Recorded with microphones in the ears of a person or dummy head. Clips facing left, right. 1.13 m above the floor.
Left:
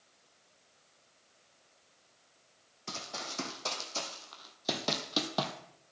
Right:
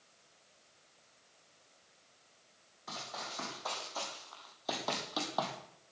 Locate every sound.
2.9 s running footsteps: 35° left (ahead or behind), 3 m; by 5.5 s 30° left (ahead or behind), 1.9 m